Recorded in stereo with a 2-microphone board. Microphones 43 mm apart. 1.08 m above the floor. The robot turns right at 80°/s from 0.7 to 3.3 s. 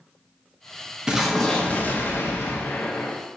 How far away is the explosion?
About 0.8 m.